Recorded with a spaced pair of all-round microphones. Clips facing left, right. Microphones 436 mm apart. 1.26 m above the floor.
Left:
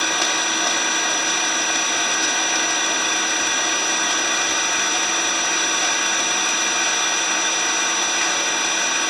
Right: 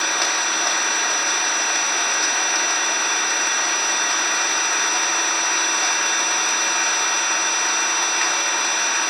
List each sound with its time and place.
0.0 s an engine running: 50° left (ahead or behind), 1.2 m